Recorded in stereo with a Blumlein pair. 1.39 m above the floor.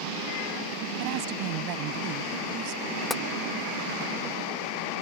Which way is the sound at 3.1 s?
5° left.